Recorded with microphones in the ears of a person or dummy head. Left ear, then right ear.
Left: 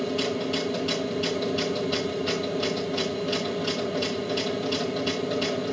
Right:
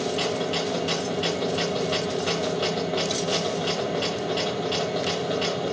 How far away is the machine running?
About 1.3 m.